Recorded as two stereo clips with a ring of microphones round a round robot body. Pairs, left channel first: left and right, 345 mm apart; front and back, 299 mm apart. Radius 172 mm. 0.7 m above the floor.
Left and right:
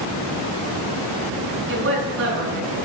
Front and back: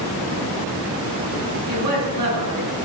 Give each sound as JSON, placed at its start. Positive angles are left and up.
{"t": 1.7, "sound": "a woman speaking", "azimuth_deg": -145, "distance_m": 10.0}